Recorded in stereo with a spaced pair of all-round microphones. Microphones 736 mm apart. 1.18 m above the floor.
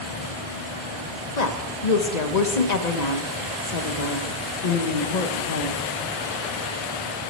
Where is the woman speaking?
65° left (ahead or behind), 1.2 m.